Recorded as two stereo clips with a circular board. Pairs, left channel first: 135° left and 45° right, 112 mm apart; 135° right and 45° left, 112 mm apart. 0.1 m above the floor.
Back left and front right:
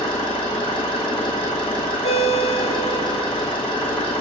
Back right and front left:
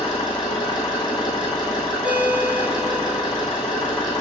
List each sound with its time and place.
0.0 s an engine running: 175° left, 3.5 m
2.0 s a ringtone: 125° left, 1.3 m